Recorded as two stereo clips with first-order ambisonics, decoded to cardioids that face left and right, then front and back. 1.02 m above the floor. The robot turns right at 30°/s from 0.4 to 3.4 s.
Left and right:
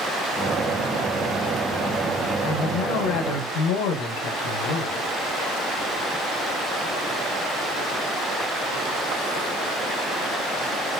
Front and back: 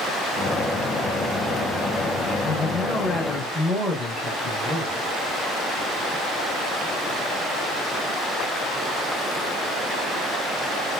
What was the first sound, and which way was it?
A man speaking, 55° left.